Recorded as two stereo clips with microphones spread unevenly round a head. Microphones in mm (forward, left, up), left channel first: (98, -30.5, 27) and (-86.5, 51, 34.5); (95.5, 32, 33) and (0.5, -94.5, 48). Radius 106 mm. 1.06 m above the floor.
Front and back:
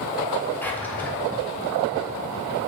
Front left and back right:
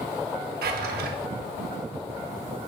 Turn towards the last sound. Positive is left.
turn(degrees=-105)